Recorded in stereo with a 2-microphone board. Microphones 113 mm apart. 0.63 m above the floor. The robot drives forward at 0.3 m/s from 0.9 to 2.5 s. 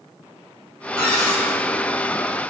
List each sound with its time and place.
1.0 s a cupboard door: 25° right (ahead or behind), 1.6 m